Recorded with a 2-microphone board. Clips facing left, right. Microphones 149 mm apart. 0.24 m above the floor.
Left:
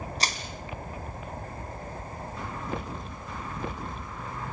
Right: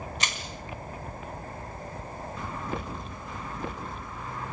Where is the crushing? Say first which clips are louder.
Left 3 dB; 35° left (ahead or behind), 2.5 m.